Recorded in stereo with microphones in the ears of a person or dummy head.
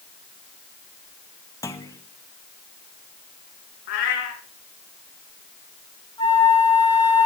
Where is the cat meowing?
60° left (ahead or behind), 2.5 m.